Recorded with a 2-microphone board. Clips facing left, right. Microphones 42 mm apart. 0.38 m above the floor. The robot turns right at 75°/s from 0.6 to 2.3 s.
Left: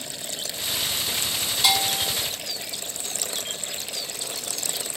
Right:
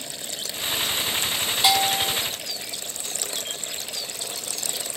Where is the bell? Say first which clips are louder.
Right 3 dB; 155° right, 2 m; by 2.1 s 120° right, 2 m.